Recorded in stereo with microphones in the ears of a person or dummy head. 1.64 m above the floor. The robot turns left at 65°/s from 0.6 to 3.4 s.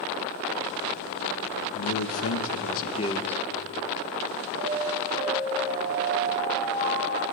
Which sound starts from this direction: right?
An alarm, at 4.6 s.